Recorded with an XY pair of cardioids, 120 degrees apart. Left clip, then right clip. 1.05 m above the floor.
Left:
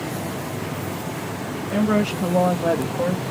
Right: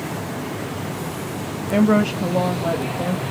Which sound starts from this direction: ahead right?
A woman speaking, at 1.7 s.